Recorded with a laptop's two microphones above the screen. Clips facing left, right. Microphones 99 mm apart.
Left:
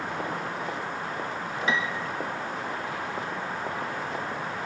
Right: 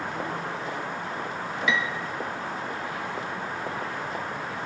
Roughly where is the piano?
Left.